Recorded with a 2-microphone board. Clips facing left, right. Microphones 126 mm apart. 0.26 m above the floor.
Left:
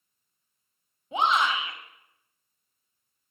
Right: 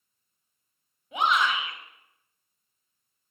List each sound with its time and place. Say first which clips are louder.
1.1 s a shout: left 1 dB; 30° left (ahead or behind), 1.8 m